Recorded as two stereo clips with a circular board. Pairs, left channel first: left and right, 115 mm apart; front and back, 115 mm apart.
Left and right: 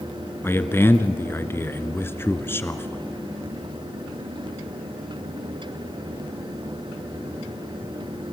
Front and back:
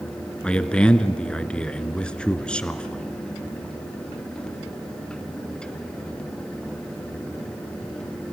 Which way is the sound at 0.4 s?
70° left.